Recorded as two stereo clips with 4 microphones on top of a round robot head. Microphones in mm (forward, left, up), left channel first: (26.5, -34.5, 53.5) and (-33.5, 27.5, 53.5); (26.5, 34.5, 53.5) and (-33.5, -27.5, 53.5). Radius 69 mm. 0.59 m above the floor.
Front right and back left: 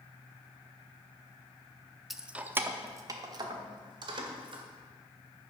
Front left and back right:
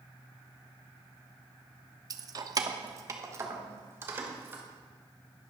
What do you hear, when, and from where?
2.1 s keys jangling: 135° right, 0.8 m; by 4.6 s 160° left, 2 m